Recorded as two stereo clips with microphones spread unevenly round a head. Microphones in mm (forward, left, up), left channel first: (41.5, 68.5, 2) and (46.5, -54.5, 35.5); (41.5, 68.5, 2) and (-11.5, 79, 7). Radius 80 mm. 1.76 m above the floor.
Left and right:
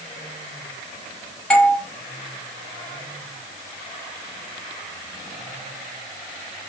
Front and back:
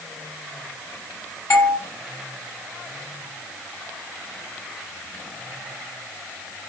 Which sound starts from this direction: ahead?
A doorbell, at 1.5 s.